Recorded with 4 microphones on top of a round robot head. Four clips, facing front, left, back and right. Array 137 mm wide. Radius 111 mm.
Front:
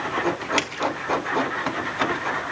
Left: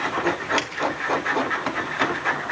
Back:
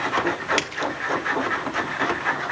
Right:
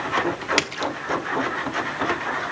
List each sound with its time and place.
0.6 s a splash: 95° right, 1.5 m